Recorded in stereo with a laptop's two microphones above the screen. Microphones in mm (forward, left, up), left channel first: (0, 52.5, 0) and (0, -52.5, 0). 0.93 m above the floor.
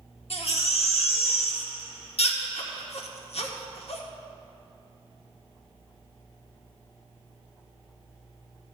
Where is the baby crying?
75° left (ahead or behind), 1.0 m.